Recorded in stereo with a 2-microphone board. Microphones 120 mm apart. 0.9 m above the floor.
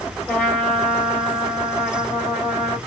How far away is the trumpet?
About 3.5 m.